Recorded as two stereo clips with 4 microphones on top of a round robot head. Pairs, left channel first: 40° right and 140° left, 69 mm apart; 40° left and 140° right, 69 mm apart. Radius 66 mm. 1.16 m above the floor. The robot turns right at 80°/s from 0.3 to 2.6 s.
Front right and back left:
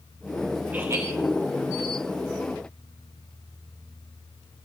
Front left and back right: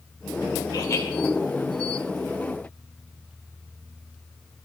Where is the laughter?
70° left, 4 m; by 1.1 s 100° left, 4 m.